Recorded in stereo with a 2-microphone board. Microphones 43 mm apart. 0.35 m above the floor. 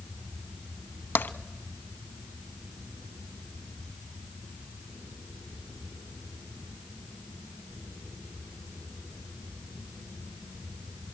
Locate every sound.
1.1 s tapping: 50° left (ahead or behind), 0.6 m